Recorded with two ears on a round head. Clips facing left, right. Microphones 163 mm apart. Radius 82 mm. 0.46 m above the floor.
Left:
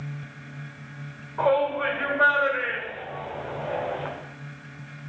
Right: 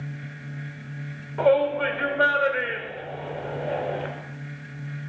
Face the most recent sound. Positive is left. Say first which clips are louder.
# right 3 dB
turn(degrees=-40)  # may be behind; listen again after turning